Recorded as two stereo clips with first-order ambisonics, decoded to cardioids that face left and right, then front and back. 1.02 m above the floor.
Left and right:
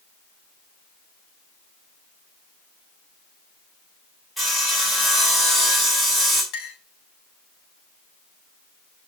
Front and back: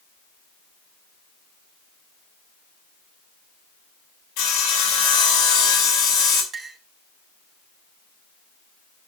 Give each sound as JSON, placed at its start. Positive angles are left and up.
{"t": 4.4, "sound": "sawing", "azimuth_deg": 0, "distance_m": 3.5}
{"t": 6.5, "sound": "a clink", "azimuth_deg": 115, "distance_m": 2.5}